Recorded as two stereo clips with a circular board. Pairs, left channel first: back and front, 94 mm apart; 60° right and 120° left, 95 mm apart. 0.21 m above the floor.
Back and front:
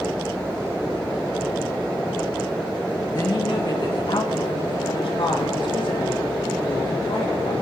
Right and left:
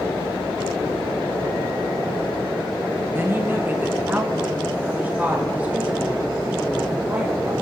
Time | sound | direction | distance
3.1 | a woman speaking | 175° left | 2 m